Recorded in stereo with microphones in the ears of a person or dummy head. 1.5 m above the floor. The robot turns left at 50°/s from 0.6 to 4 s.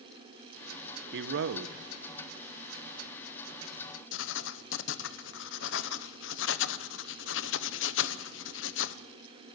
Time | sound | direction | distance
1.1 | a man speaking | 80° right | 0.8 m
4.1 | writing | 75° left (ahead or behind) | 0.9 m